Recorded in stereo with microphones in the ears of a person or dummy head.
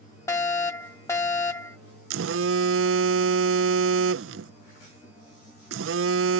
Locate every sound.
0.3 s a fire alarm: 10° left (ahead or behind)
2.1 s a phone buzzing: 80° right